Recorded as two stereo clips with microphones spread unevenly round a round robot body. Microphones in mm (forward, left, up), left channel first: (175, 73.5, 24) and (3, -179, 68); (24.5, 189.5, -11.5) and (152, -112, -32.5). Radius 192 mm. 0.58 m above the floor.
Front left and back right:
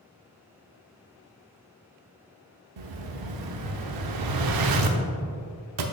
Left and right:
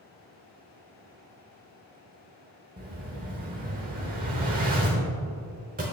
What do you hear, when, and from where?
2.8 s an explosion: 135° right, 0.8 m